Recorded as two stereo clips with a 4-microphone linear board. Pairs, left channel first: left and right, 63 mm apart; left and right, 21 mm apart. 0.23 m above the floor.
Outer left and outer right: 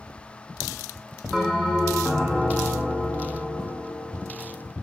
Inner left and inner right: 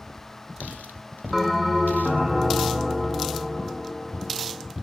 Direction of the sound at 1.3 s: Centre (ahead or behind).